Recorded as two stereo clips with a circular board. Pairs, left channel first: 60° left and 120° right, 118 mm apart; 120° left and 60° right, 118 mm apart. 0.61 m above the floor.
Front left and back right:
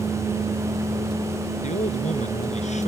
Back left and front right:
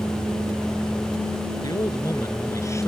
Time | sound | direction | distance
1.6 | a man speaking | 60° left | ?